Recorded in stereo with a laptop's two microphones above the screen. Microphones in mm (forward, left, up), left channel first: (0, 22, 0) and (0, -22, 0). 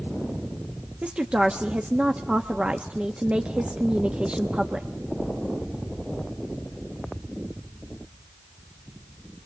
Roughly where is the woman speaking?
Right.